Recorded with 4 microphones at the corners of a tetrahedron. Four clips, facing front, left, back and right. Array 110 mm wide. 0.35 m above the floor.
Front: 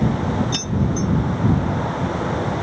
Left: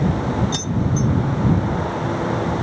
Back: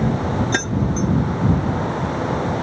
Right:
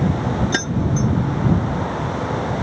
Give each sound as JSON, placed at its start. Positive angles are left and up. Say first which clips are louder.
{"t": 0.5, "sound": "keys jangling", "louder": "right 1 dB, back 1 dB", "azimuth_deg": -140}